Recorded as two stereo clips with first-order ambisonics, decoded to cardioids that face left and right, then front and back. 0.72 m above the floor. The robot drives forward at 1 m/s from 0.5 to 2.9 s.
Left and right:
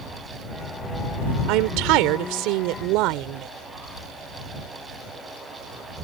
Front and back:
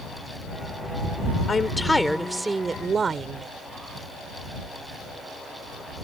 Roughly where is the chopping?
I don't hear chopping.